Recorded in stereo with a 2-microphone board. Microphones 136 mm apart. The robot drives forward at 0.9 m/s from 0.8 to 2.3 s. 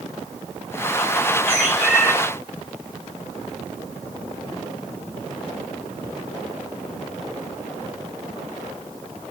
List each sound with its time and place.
1.5 s a bird: 5° right (ahead or behind), 1.9 m